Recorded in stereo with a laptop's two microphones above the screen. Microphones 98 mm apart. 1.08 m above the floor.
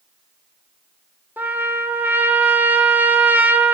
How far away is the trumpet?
About 0.8 m.